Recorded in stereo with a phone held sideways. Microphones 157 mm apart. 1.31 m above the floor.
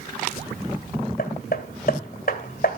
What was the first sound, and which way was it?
Hammering, 60° left (ahead or behind).